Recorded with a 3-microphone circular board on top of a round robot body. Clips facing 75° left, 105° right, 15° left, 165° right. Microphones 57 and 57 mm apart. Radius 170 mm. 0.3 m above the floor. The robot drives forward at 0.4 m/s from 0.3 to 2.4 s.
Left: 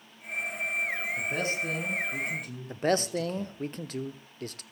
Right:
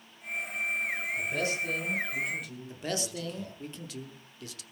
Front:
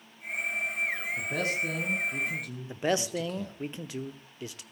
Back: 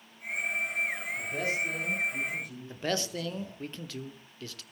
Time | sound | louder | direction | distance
1.2 | a man speaking | right 1 dB, even | 25° left | 5 m
2.7 | a man speaking | left 9 dB, front 4 dB | 80° left | 1.2 m